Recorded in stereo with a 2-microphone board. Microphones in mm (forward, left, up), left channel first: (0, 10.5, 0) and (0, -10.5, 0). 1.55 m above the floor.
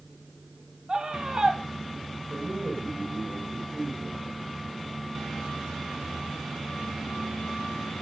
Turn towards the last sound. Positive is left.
turn(degrees=-55)  # may be behind; listen again after turning